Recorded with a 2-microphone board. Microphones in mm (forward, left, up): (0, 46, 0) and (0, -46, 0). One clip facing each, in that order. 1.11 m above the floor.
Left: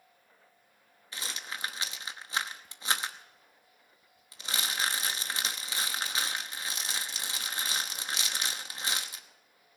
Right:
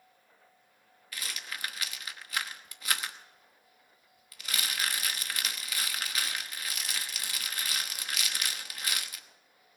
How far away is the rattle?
About 0.9 m.